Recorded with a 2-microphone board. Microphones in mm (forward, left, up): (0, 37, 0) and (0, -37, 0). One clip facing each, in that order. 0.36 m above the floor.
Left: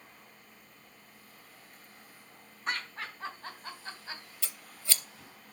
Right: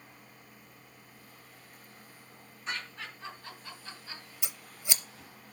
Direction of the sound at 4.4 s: 20° right (ahead or behind).